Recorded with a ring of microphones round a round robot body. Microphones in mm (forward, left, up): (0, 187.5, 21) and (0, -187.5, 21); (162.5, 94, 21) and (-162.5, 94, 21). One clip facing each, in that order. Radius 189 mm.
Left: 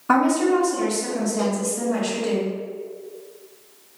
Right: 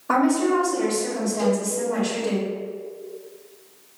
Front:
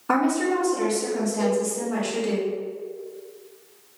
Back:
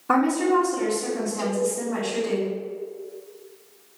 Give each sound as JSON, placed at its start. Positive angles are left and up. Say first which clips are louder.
{"t": 0.1, "sound": "a woman speaking", "louder": "left 1 dB, back 1 dB", "azimuth_deg": 50, "distance_m": 1.3}
{"t": 1.4, "sound": "a cowbell", "louder": "right 6 dB, front 5 dB", "azimuth_deg": 155, "distance_m": 1.2}